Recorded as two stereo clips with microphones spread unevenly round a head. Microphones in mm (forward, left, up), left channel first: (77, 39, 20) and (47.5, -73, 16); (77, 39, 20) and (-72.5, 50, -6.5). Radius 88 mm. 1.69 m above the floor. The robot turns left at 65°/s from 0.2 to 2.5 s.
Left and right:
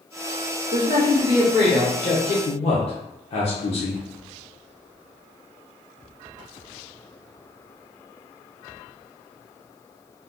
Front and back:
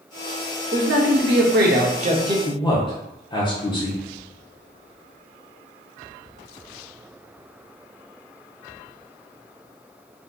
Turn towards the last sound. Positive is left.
turn(degrees=50)